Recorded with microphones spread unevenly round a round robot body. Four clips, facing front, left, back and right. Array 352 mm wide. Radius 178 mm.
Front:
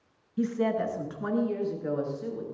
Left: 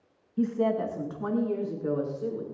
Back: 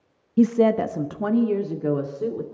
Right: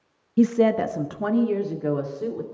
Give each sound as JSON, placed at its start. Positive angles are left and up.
{"t": 0.4, "sound": "a woman speaking", "azimuth_deg": -135, "distance_m": 0.8}